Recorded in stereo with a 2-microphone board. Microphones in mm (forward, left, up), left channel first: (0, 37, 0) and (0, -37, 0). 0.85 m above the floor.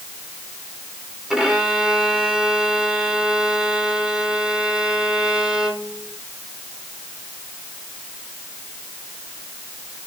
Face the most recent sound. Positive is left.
turn(degrees=-10)  # may be behind; listen again after turning